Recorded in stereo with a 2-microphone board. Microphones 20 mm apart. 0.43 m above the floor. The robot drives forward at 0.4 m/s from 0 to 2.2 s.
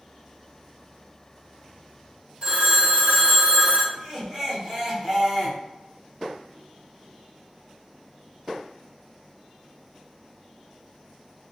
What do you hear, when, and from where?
2.4 s a phone ringing: 45° right (ahead or behind), 0.9 m
3.9 s laughter: 20° right (ahead or behind), 1.5 m